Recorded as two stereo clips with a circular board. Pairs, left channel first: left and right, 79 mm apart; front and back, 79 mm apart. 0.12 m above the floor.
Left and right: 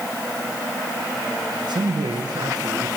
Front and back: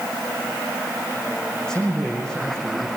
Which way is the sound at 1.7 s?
80° right.